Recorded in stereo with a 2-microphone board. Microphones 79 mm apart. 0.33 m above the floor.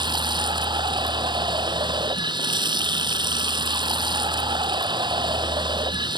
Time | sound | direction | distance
0.0 | running water | 70° right (ahead or behind) | ?